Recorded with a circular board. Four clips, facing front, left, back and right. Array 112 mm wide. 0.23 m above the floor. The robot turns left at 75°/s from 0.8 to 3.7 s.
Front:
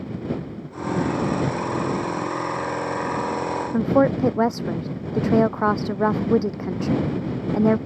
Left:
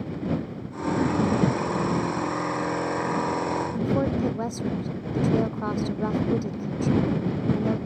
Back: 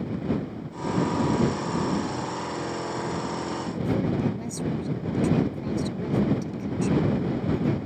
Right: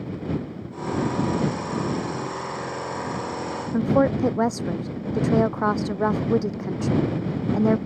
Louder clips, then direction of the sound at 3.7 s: Right 9 dB, front 9 dB; 25° right.